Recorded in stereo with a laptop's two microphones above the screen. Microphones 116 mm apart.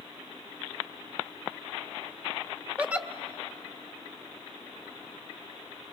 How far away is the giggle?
About 0.8 m.